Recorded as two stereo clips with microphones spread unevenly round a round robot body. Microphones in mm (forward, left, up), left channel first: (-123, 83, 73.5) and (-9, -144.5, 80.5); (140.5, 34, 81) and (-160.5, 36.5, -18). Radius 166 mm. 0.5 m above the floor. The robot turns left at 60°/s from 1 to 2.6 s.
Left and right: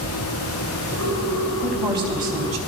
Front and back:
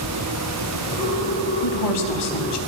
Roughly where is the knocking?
I don't hear knocking.